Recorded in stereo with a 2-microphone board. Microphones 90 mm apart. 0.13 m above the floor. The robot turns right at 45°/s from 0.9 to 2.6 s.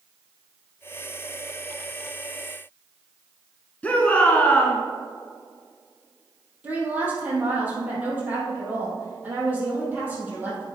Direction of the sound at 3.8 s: 20° left (ahead or behind).